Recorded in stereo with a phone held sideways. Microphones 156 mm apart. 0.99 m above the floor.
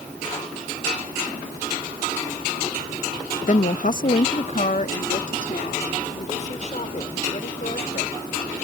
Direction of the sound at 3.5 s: 55° left (ahead or behind).